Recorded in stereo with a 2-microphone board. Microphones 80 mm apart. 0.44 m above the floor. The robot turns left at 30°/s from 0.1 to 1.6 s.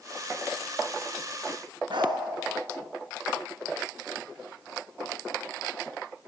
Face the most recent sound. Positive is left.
turn(degrees=-75)  # may be behind; listen again after turning